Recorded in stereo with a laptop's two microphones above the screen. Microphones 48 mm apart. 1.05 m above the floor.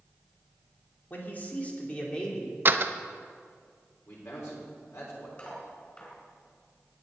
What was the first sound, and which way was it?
A man speaking, 40° left (ahead or behind).